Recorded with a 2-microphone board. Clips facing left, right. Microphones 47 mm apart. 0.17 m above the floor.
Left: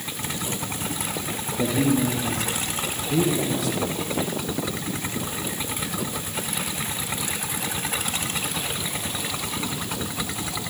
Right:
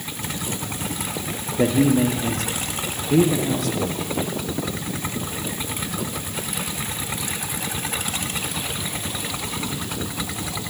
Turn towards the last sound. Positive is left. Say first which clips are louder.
# right 4 dB
turn(degrees=-50)  # may be behind; listen again after turning